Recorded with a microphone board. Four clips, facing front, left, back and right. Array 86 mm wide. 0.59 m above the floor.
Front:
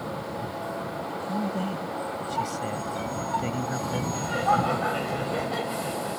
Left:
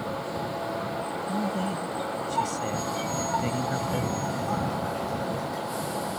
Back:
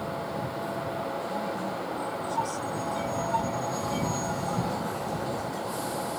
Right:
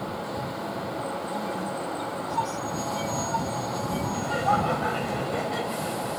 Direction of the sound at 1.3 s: 45° left.